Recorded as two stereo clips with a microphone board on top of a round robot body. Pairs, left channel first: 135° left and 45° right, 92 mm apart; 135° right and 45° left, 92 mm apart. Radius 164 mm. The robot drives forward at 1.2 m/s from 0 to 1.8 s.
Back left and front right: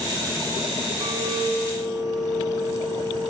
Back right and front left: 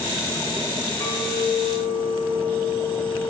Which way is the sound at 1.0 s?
80° right.